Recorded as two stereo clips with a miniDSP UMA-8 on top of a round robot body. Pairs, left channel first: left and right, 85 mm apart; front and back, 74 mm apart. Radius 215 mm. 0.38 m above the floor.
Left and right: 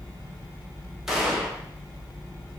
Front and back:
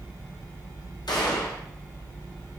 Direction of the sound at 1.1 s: 5° right.